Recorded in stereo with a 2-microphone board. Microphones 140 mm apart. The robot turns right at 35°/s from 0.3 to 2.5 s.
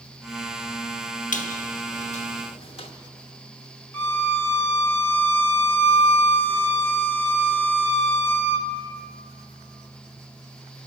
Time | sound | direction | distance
1.3 | a squeak | 85° left | 1.0 m
3.9 | a violin | 15° left (ahead or behind) | 1.1 m